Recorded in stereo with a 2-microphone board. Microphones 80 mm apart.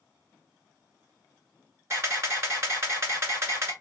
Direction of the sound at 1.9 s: 35° right (ahead or behind).